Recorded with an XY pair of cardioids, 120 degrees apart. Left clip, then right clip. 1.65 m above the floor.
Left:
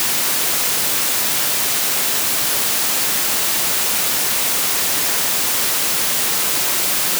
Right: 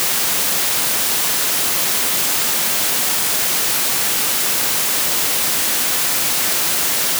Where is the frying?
I don't hear frying.